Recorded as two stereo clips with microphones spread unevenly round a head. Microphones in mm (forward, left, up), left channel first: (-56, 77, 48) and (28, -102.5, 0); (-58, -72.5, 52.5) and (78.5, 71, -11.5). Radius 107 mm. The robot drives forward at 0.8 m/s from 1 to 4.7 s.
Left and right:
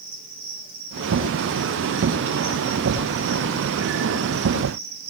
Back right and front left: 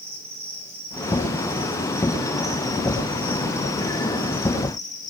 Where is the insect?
25° right, 4 m; by 5.1 s 70° right, 2 m.